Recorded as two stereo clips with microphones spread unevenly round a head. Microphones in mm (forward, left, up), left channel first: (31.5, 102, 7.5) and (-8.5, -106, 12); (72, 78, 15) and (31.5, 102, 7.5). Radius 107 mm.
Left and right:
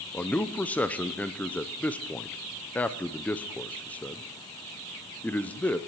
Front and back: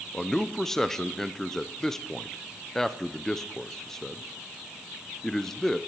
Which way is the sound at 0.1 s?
5° left.